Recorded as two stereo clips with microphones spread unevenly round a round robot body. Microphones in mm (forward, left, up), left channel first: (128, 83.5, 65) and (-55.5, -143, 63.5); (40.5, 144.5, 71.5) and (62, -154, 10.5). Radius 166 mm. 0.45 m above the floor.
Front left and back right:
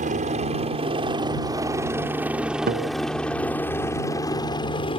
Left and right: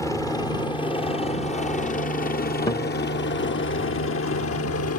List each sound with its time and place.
0.0 s a helicopter: 175° right; by 5.0 s 110° left
2.7 s a guitar: 175° left